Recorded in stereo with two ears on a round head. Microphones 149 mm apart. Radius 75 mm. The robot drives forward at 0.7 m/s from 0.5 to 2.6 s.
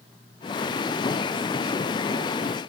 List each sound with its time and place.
Only background noise.